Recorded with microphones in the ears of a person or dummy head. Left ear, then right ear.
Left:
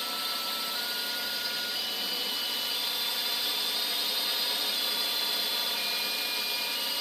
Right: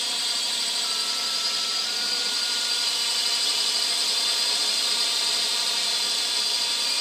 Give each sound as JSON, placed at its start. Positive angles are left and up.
{"t": 0.0, "sound": "a drone", "side_deg": -15}